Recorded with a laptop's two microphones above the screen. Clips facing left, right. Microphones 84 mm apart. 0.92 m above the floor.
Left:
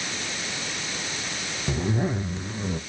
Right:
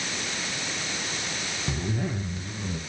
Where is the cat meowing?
No cat meowing in this recording.